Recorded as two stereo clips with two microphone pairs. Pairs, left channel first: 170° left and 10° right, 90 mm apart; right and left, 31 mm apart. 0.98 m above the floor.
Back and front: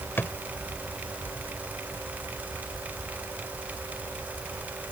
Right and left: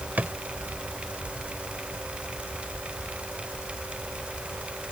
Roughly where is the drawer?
Left.